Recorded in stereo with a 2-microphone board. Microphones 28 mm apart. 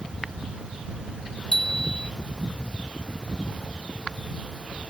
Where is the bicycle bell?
35° left (ahead or behind).